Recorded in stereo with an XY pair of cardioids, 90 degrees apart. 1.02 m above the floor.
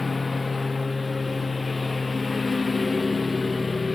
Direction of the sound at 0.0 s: 25° left.